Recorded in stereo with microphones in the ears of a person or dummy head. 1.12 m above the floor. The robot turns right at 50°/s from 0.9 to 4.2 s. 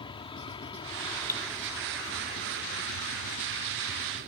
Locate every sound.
0.0 s an aircraft: 150° left; by 4.3 s 45° right
1.3 s cutlery clinking: 15° left (ahead or behind); by 1.4 s 20° left (ahead or behind)